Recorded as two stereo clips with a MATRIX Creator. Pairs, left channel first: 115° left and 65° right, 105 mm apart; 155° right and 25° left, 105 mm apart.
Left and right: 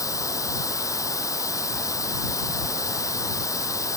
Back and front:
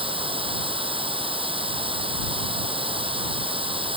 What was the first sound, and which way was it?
Running water, 55° left.